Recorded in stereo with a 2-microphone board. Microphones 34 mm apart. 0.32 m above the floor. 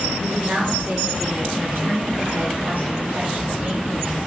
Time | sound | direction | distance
0.2 | a woman speaking | 70° right (ahead or behind) | 5 m